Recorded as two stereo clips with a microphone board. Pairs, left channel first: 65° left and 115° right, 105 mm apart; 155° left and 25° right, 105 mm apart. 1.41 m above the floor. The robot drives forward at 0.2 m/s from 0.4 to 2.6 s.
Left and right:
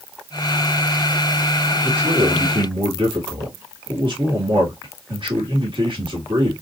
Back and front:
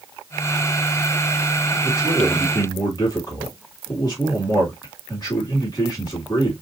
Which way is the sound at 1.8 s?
150° right.